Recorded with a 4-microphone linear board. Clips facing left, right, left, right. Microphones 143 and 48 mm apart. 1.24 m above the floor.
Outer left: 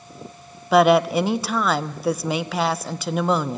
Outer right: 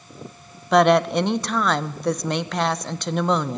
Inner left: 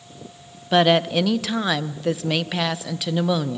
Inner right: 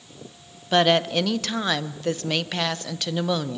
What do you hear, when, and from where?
0.7 s a woman speaking: 5° left (ahead or behind), 0.7 m